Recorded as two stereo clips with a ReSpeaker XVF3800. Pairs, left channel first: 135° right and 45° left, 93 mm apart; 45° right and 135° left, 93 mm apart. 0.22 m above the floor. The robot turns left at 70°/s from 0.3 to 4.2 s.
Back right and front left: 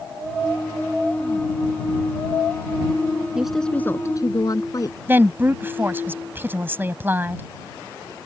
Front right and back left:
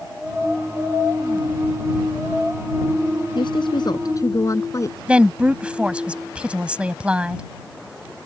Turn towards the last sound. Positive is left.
turn(degrees=75)